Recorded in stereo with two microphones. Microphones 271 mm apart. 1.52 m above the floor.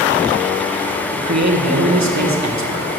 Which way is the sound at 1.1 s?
80° right.